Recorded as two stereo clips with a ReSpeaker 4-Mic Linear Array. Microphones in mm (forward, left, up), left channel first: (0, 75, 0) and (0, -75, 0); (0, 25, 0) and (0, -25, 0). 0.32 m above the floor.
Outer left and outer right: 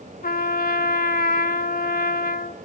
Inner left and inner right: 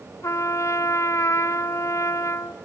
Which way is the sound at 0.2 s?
85° left.